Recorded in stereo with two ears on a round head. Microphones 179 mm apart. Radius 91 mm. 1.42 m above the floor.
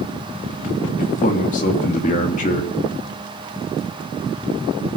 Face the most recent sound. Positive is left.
turn(degrees=35)  # may be behind; listen again after turning